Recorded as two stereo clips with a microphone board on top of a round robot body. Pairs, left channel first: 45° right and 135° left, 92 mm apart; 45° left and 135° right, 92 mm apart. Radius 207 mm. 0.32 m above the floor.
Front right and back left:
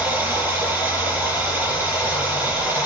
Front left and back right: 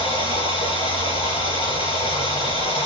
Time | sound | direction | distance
0.0 | running water | 60° left | 7.5 m